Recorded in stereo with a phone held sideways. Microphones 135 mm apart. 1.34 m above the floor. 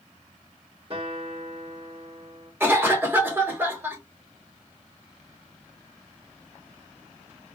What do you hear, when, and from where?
0.9 s a guitar: 40° right (ahead or behind), 2 m
2.6 s a cough: 15° right (ahead or behind), 1.3 m